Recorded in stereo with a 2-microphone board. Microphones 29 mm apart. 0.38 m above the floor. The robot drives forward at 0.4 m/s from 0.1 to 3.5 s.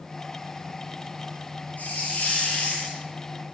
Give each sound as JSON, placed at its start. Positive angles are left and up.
{"t": 1.8, "sound": "a hiss", "side_deg": 85, "distance_m": 4.5}